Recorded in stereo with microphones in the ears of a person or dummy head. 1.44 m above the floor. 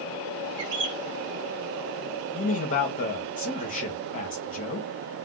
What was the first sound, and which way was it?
A bird, 60° right (ahead or behind).